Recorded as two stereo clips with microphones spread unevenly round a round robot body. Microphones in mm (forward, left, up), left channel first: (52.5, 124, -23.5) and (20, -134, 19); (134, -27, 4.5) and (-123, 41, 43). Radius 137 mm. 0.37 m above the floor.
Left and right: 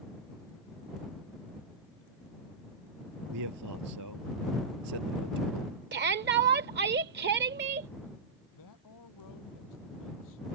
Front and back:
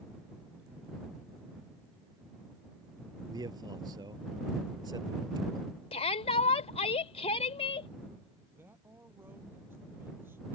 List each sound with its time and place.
3.3 s a man speaking: 120° right
5.9 s a shout: 60° right
8.5 s a man speaking: 85° left